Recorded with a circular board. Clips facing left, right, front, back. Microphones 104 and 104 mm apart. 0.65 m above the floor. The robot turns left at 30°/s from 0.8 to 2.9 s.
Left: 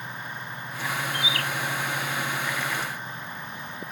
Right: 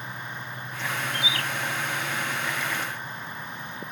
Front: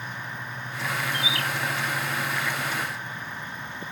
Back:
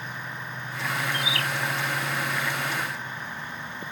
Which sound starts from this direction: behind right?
A bird, at 1.1 s.